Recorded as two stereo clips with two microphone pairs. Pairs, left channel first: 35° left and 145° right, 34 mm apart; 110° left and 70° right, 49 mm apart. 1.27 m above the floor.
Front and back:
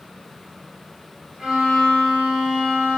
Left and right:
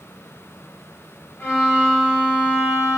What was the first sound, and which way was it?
A violin, 140° left.